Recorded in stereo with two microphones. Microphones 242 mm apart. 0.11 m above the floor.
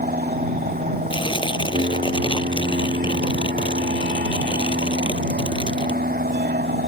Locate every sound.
0.0 s an aircraft: 35° right (ahead or behind); by 6.9 s 40° right (ahead or behind)
1.1 s tearing paper: 20° left (ahead or behind)